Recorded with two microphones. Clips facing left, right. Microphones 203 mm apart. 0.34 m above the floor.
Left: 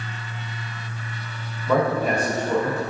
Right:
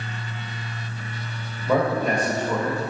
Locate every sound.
1.7 s a man speaking: 15° right (ahead or behind), 1.0 m; by 2.8 s 35° left (ahead or behind), 0.9 m